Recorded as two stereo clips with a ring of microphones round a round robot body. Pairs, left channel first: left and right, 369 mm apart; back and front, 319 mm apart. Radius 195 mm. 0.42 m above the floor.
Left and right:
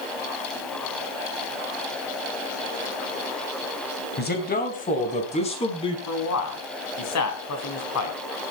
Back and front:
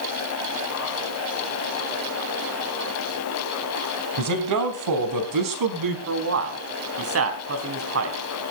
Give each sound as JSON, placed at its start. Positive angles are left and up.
{"t": 4.2, "sound": "a man speaking", "azimuth_deg": 25, "distance_m": 3.5}
{"t": 6.1, "sound": "a man speaking", "azimuth_deg": 45, "distance_m": 3.5}